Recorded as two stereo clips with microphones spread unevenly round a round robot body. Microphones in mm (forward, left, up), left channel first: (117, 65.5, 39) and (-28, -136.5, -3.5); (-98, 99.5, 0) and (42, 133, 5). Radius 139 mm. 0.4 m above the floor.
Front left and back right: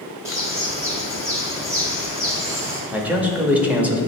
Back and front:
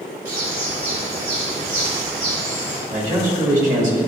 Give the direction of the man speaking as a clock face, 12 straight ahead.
2 o'clock.